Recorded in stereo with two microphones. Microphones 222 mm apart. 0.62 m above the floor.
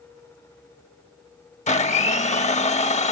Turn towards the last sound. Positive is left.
turn(degrees=30)  # may be behind; listen again after turning